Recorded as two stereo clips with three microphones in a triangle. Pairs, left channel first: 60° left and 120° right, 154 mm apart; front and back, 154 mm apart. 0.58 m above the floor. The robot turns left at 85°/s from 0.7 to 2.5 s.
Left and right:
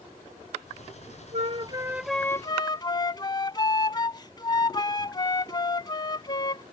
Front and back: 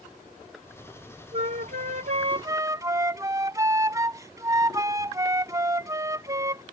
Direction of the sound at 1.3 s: 145° right.